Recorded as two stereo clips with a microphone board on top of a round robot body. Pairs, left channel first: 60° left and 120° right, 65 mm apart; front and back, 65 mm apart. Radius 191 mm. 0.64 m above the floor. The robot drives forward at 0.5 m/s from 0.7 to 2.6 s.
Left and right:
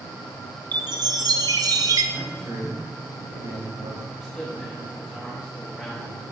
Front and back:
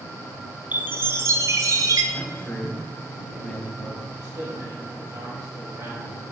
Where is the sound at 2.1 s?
80° right, 4.5 m.